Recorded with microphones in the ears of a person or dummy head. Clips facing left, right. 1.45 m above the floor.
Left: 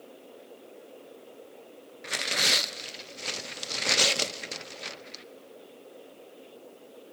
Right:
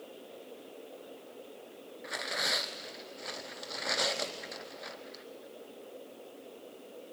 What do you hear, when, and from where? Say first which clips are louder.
2.0 s tearing paper: left 4 dB; 45° left (ahead or behind), 0.6 m